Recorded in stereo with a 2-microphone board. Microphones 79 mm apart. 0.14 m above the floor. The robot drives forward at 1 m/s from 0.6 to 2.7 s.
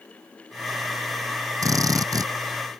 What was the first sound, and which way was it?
A drill, 45° right (ahead or behind).